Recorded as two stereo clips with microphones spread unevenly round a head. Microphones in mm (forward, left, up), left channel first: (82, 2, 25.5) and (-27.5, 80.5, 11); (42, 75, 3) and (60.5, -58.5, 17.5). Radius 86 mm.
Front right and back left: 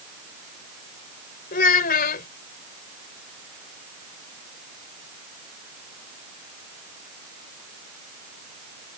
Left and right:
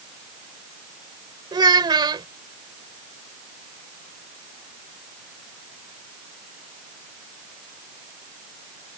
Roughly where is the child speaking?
Ahead right.